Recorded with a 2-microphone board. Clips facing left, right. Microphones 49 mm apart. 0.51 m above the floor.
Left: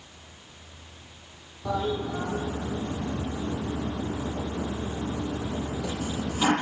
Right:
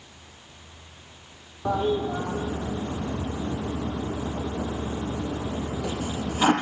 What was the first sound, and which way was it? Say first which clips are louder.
A toilet flushing: right 4 dB; 30° right (ahead or behind).